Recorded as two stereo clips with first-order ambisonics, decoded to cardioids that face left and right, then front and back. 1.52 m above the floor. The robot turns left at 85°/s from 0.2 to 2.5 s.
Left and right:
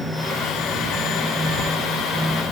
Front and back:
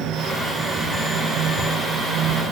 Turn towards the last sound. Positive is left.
No sound to turn to.